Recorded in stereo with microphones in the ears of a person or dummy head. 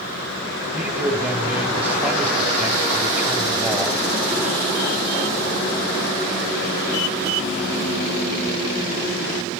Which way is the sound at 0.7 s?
10° right (ahead or behind).